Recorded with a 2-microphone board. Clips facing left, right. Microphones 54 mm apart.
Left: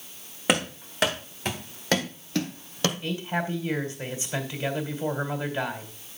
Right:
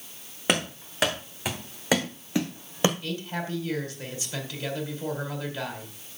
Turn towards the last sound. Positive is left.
turn(degrees=25)  # may be behind; listen again after turning